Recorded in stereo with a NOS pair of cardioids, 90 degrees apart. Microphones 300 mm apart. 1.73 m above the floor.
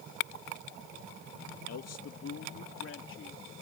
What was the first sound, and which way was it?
A man speaking, 60° left.